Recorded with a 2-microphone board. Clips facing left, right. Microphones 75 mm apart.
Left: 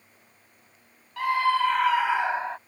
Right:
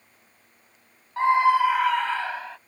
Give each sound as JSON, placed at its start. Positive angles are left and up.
{"t": 1.2, "sound": "a scream", "side_deg": -30}